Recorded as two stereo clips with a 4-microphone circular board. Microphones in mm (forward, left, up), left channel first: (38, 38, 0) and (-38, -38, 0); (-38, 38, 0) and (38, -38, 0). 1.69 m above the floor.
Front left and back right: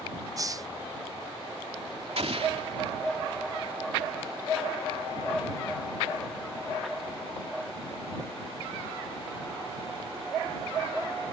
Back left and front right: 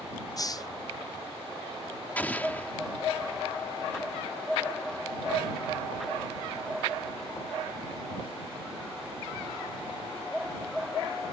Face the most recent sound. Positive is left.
turn(degrees=-150)